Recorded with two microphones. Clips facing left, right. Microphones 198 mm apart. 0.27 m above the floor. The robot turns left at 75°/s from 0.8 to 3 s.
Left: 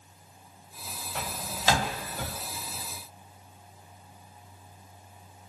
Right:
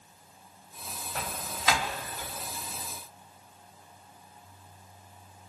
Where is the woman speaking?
No woman speaking in this recording.